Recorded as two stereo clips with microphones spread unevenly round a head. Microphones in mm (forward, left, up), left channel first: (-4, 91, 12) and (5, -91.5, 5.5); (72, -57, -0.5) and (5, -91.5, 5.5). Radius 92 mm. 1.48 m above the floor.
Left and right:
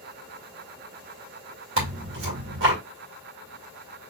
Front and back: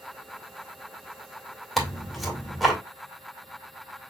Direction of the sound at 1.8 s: 60° right.